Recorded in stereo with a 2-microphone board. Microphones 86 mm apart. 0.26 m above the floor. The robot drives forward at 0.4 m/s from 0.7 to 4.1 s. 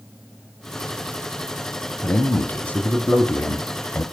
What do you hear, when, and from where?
2.0 s a man speaking: 15° left (ahead or behind), 1.5 m; by 4.0 s 20° left (ahead or behind), 1.2 m